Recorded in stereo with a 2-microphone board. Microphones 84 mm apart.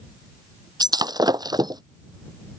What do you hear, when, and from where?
0.8 s breaking glass: 55° right (ahead or behind)